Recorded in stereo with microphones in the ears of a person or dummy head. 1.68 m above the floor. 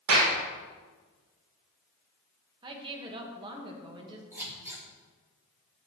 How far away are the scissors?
About 3.5 m.